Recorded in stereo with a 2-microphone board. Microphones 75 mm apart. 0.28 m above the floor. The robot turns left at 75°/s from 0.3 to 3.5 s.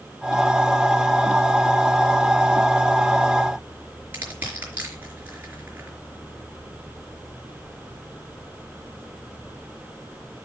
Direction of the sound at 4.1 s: 25° right (ahead or behind).